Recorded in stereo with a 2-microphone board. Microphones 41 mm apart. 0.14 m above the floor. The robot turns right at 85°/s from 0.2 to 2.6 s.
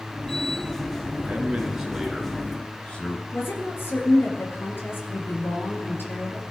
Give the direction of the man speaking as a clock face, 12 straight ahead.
2 o'clock.